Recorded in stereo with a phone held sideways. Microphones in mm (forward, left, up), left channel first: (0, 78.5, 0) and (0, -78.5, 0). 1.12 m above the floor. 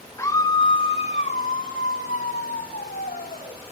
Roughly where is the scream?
Centre.